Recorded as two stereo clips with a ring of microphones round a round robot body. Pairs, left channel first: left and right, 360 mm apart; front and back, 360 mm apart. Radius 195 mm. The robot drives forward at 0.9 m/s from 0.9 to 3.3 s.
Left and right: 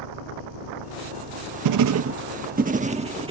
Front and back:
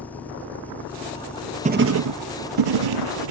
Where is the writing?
110° right; by 3.3 s 165° right.